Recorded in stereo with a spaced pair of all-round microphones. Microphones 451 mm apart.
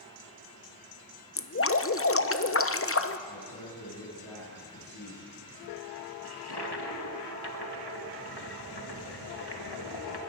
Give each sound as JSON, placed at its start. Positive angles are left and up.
{"t": 1.4, "sound": "dripping", "side_deg": 30, "distance_m": 0.7}
{"t": 3.3, "sound": "a man speaking", "side_deg": 35, "distance_m": 9.0}
{"t": 6.2, "sound": "a toilet flushing", "side_deg": 60, "distance_m": 2.0}